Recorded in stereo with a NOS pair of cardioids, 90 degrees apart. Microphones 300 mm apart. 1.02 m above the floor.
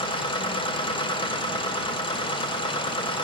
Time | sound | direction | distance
0.0 | a machine running | 15° left | 5 m